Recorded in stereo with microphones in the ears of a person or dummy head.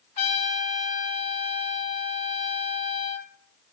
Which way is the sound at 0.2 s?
45° left (ahead or behind).